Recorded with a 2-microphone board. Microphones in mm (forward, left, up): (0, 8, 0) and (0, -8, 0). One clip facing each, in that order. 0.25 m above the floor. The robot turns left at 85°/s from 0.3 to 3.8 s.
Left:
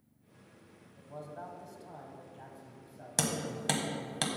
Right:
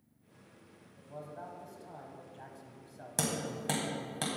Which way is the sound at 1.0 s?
90° left.